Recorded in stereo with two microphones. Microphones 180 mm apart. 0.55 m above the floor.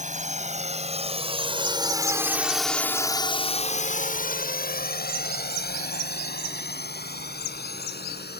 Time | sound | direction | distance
0.0 | a drone | 45° right (ahead or behind) | ?